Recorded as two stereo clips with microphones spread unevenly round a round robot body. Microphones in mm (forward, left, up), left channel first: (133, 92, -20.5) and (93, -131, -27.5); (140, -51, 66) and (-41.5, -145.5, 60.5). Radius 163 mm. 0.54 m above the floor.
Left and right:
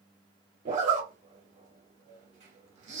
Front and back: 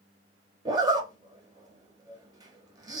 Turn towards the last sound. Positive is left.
turn(degrees=-100)